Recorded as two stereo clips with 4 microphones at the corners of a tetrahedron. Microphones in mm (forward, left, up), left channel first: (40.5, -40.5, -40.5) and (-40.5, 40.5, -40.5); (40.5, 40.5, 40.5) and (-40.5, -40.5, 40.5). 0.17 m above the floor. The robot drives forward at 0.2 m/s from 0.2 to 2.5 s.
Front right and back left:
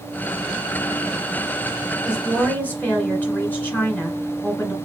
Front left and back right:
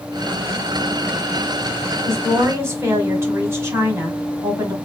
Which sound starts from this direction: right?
A woman speaking, at 2.0 s.